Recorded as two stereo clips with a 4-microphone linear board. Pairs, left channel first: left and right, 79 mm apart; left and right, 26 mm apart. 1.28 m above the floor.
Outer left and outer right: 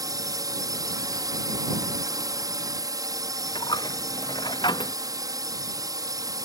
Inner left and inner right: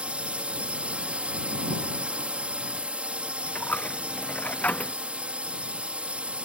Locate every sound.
0.0 s a drone: 55° right (ahead or behind)
3.5 s a dropped coin: 85° left